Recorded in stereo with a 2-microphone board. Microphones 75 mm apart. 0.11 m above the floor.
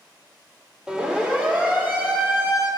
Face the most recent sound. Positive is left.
turn(degrees=-35)  # may be behind; listen again after turning